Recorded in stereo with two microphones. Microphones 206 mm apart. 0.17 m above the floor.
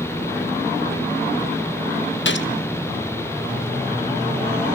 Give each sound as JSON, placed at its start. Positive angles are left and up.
{"t": 2.2, "sound": "a gunshot", "side_deg": 75, "distance_m": 1.0}